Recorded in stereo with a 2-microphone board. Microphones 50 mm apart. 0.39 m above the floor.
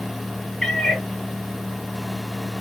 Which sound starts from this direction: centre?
A cat meowing, at 0.6 s.